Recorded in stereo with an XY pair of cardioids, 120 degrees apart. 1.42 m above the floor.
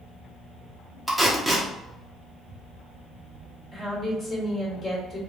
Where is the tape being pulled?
5° right, 1.0 m.